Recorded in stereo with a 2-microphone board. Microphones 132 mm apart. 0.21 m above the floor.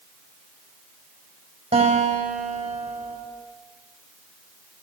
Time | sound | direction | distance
1.7 | a guitar | 45° right (ahead or behind) | 6 m